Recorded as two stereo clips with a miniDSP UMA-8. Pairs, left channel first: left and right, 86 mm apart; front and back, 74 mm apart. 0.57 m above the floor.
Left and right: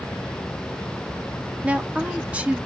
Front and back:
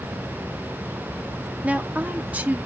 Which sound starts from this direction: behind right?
A woman speaking, at 1.6 s.